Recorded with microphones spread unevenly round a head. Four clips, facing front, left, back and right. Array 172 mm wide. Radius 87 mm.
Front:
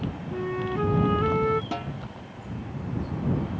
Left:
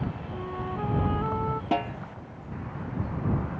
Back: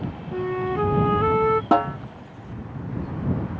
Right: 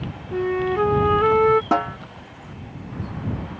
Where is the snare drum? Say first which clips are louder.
Right 6 dB, back 13 dB; 160° right.